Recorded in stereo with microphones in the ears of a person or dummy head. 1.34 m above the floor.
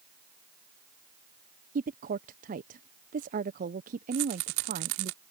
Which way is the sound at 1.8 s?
40° right (ahead or behind).